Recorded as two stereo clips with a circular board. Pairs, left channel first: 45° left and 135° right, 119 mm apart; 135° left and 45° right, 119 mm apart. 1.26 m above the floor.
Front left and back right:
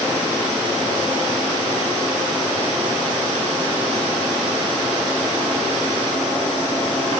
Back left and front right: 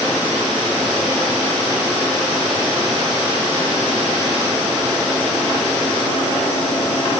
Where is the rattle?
No rattle in this recording.